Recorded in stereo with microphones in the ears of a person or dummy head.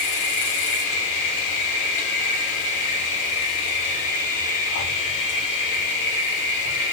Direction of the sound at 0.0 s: 40° left (ahead or behind).